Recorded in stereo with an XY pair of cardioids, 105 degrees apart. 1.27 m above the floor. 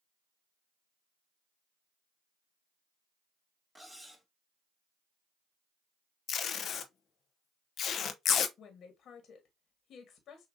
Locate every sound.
3.8 s cutlery clinking: straight ahead, 1.4 m
6.3 s tape being pulled: 60° left, 0.7 m
8.6 s a woman speaking: 60° left, 1.4 m